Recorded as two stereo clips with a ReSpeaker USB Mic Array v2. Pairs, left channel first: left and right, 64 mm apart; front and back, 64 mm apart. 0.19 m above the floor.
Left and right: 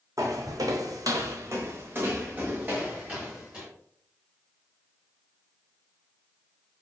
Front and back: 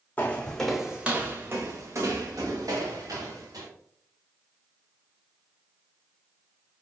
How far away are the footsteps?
About 0.7 m.